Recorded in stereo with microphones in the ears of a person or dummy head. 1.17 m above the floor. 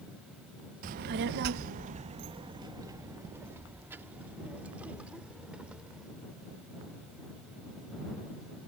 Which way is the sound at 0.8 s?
40° right (ahead or behind).